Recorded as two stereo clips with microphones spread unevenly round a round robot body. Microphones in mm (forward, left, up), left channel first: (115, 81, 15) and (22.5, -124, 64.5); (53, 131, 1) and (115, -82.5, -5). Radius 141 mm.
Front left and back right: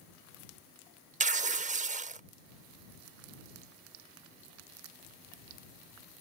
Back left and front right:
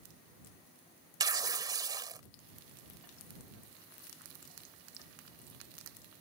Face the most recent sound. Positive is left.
turn(degrees=-95)